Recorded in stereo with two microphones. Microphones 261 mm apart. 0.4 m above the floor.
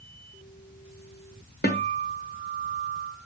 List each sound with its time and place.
1.6 s a guitar: 40° left (ahead or behind), 1.4 m